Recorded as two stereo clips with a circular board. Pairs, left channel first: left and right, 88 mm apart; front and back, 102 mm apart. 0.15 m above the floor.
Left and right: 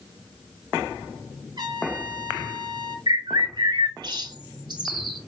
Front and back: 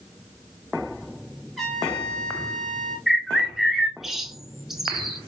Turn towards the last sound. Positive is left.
turn(degrees=-95)